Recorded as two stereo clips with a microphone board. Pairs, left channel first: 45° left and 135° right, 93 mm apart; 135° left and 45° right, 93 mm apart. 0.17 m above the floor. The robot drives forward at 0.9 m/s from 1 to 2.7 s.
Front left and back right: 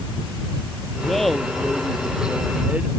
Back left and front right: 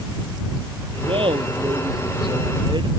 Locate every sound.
1.0 s laughter: 40° right; by 2.9 s 60° right